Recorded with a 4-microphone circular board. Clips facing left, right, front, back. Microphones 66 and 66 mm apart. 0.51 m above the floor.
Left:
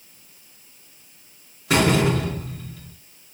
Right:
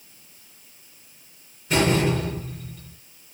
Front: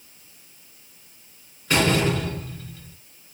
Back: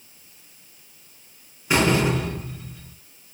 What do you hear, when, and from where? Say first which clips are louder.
1.7 s a door slam: left 2 dB, back 1 dB; 105° left, 3 m